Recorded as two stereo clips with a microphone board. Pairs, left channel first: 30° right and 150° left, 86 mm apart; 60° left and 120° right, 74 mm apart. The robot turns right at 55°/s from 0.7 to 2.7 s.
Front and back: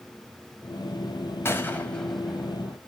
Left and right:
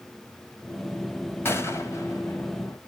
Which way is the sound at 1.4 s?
20° left.